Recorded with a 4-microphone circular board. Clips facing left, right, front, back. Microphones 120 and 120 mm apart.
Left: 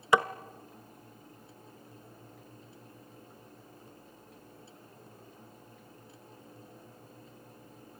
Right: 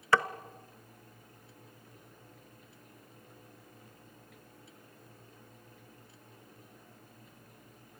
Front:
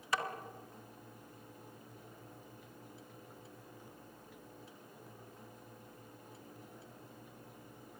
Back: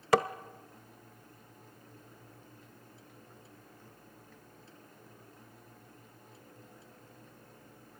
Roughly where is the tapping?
Behind.